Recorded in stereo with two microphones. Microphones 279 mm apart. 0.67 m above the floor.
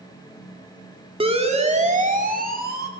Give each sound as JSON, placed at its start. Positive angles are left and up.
{"t": 1.2, "sound": "a siren", "side_deg": -20, "distance_m": 2.5}